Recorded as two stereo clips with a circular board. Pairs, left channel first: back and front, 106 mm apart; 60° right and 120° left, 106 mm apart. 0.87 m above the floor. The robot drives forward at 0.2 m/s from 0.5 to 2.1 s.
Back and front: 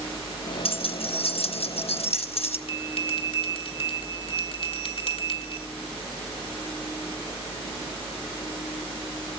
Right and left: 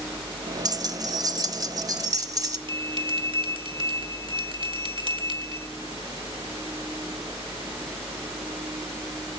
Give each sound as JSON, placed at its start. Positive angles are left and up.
{"t": 0.7, "sound": "keys jangling", "azimuth_deg": 170, "distance_m": 0.6}
{"t": 2.7, "sound": "a bell", "azimuth_deg": 155, "distance_m": 1.5}